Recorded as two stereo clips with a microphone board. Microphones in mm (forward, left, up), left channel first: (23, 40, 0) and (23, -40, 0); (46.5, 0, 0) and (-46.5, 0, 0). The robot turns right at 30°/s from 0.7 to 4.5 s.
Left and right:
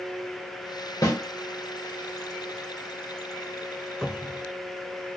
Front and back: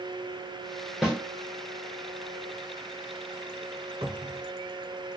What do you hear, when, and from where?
1.0 s a snare drum: 95° left, 1.3 m; by 1.2 s 100° left, 1.3 m
4.0 s a cupboard door: 175° left, 1.0 m; by 4.5 s 170° right, 1.0 m